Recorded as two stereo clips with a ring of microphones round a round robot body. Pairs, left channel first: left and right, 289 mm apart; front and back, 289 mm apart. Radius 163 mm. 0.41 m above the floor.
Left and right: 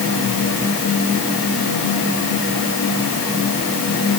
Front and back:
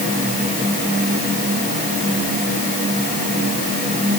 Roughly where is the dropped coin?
No dropped coin in this recording.